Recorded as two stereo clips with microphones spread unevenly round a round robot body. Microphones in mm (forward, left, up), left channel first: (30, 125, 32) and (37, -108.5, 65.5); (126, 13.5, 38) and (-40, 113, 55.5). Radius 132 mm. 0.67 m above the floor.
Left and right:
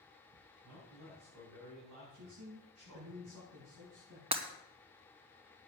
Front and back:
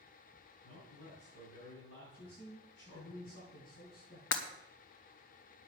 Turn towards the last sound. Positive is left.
turn(degrees=-20)